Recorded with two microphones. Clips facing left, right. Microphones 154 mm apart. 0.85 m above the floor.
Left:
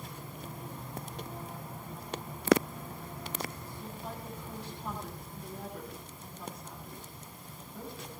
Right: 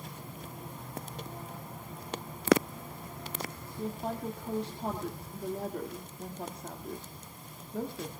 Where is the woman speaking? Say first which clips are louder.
Right 9 dB; 65° right (ahead or behind), 1.8 m.